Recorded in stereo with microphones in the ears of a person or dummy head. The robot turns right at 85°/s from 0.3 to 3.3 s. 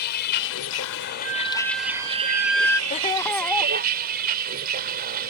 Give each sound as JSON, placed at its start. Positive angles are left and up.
{"t": 0.0, "sound": "a vehicle", "azimuth_deg": 55}
{"t": 1.2, "sound": "a flute", "azimuth_deg": -115}
{"t": 2.9, "sound": "laughter", "azimuth_deg": 140}